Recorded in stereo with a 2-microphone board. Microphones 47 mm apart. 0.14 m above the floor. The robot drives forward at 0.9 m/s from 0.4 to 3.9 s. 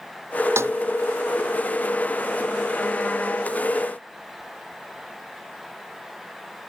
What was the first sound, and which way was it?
A snare drum, 65° right (ahead or behind).